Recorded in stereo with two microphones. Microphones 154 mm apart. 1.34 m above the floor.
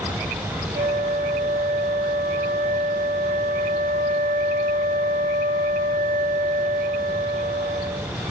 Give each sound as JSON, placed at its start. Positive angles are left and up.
{"t": 0.8, "sound": "a flute", "side_deg": -70, "distance_m": 2.5}